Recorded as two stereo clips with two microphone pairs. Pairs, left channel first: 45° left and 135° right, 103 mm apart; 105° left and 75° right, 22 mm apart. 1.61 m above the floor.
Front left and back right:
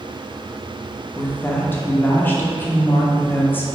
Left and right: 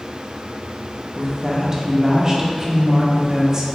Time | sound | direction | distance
1.1 | a woman speaking | 20° right | 0.5 m